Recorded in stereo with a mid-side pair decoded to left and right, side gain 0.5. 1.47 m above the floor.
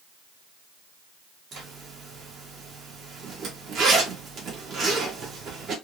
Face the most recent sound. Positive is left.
turn(degrees=-55)